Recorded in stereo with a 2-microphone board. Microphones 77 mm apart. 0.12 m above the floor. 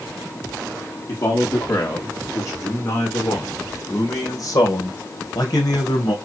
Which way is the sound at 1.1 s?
35° left (ahead or behind).